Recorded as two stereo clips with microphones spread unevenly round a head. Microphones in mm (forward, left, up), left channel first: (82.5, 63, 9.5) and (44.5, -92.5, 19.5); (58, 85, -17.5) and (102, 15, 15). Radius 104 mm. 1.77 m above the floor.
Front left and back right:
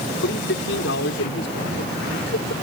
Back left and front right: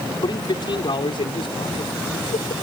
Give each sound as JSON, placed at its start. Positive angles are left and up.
{"t": 0.2, "sound": "a man speaking", "azimuth_deg": 80}